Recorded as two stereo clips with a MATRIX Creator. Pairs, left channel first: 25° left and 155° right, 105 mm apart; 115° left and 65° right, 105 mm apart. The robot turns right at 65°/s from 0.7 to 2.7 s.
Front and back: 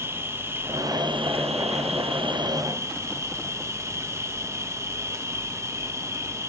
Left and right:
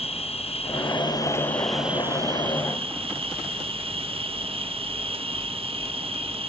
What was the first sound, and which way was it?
An insect, 135° left.